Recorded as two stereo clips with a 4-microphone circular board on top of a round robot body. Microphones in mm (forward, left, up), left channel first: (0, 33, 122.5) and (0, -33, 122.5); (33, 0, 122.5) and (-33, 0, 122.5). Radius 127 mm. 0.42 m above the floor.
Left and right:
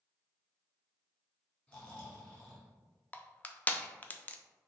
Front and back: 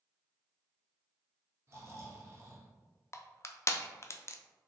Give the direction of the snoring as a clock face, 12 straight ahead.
7 o'clock.